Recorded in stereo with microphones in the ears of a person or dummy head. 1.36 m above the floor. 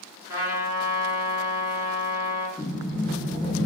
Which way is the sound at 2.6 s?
5° left (ahead or behind).